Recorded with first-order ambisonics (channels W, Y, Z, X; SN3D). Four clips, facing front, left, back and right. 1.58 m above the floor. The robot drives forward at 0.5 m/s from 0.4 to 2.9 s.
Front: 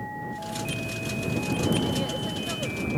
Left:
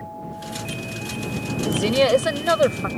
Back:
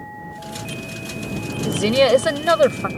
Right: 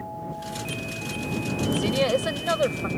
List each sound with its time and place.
1.6 s a woman speaking: 160° left